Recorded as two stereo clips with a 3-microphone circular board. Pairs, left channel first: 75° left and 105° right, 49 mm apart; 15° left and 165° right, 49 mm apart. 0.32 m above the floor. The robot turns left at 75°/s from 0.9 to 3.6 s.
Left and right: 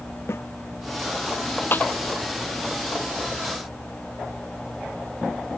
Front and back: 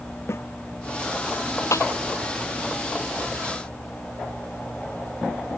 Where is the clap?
30° left; by 1.9 s 15° left.